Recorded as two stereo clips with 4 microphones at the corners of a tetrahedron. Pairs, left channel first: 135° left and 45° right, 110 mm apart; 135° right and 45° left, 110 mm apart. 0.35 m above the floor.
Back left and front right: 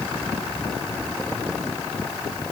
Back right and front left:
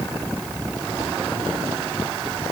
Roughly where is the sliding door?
No sliding door in this recording.